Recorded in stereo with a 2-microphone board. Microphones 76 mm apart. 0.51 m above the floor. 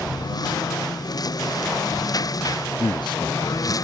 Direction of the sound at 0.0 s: 55° left (ahead or behind).